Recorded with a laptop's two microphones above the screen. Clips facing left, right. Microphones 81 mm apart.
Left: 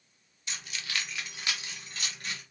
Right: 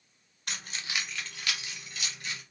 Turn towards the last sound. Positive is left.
turn(degrees=50)  # may be behind; listen again after turning